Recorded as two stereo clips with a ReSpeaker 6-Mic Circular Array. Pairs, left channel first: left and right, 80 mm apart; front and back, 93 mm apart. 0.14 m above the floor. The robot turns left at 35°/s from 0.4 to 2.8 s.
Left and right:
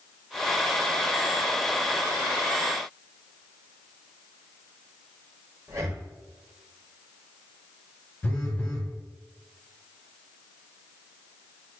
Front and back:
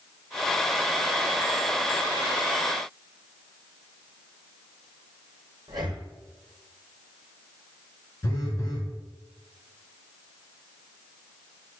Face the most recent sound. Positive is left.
turn(degrees=35)